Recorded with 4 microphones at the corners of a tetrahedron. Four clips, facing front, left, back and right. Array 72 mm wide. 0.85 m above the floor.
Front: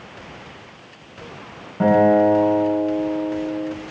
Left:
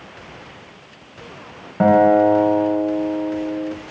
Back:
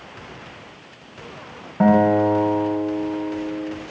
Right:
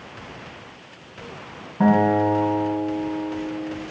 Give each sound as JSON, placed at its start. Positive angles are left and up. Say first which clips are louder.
{"t": 1.8, "sound": "a guitar", "louder": "left 5 dB, front 1 dB", "azimuth_deg": 105, "distance_m": 4.0}